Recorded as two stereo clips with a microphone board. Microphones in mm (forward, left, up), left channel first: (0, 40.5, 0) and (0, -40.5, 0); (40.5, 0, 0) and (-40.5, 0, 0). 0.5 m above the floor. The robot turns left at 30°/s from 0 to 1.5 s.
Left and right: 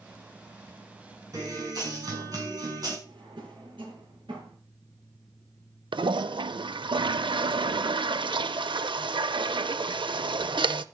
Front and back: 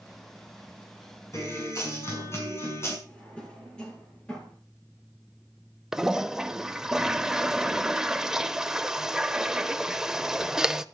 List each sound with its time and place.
1.3 s a guitar: 50° right, 6 m; by 3.0 s 55° right, 6 m
3.1 s a drawer: 75° right, 6 m
5.9 s a toilet flushing: 95° right, 0.6 m